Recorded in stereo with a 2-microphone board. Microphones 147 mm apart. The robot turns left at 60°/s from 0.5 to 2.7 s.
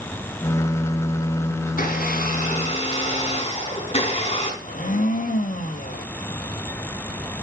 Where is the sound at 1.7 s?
105° left, 4.5 m; by 4.5 s 45° left, 4.5 m.